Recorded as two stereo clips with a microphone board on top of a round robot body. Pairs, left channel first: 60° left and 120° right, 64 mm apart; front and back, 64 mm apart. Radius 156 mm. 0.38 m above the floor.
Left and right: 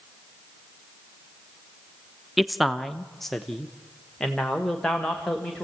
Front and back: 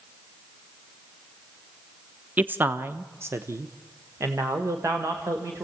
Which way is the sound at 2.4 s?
155° left.